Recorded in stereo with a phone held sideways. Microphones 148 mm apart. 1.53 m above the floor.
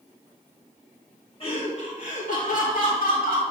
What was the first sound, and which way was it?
Laughter, 40° left (ahead or behind).